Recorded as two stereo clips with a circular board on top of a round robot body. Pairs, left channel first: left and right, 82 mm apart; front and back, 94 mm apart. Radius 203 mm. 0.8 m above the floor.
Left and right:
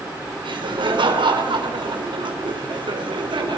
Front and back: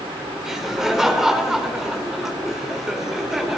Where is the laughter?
95° right, 4 m.